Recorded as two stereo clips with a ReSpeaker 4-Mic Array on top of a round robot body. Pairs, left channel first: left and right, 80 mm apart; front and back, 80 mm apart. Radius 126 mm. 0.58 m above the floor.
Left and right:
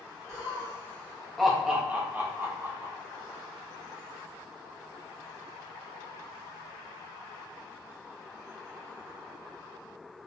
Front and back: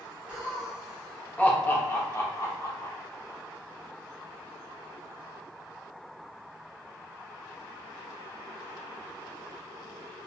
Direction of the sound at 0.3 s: 110° left.